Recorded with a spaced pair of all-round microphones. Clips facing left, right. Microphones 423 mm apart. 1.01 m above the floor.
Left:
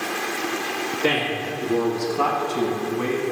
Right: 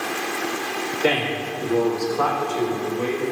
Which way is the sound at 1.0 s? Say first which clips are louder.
Right 1 dB; 15° left (ahead or behind).